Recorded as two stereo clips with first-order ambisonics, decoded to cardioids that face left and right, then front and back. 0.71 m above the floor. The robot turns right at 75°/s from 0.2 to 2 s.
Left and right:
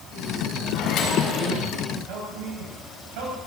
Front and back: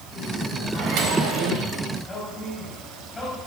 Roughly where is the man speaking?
Right.